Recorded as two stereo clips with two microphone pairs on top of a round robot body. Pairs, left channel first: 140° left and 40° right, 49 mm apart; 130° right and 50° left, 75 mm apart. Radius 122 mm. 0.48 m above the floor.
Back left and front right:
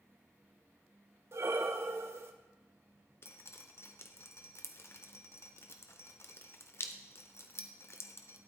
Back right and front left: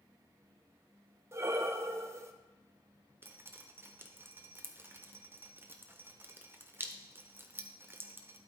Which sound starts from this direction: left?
Dripping, at 3.2 s.